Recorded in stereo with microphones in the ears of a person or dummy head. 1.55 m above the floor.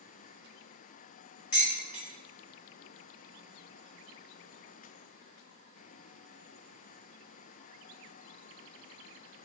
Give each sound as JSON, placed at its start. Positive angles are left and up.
{"t": 1.5, "sound": "dishes clattering", "side_deg": 35, "distance_m": 1.9}